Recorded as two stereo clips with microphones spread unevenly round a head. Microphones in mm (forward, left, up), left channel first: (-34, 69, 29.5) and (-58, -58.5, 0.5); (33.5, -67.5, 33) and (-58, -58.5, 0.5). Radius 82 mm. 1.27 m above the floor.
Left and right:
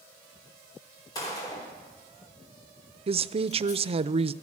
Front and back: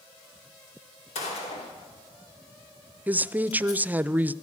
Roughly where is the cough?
No cough in this recording.